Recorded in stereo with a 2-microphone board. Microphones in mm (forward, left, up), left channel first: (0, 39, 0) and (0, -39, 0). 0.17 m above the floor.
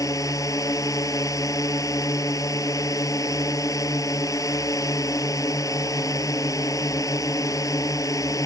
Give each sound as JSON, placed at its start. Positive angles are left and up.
{"t": 0.0, "sound": "a drone", "side_deg": 45}